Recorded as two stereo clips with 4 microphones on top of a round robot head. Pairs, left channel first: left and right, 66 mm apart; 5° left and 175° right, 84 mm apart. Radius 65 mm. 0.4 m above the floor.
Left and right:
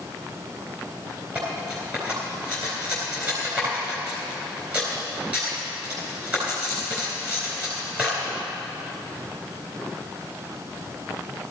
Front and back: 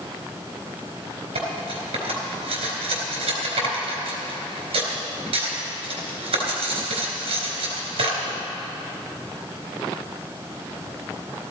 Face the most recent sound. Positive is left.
turn(degrees=-160)